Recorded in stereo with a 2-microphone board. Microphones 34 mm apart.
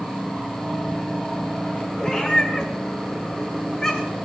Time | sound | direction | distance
2.0 | a cat meowing | 15° left (ahead or behind) | 3 m